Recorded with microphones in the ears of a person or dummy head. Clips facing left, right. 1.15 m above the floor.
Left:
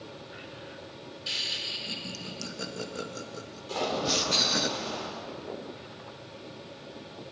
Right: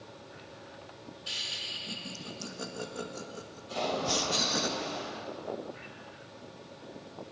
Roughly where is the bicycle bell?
I don't hear a bicycle bell.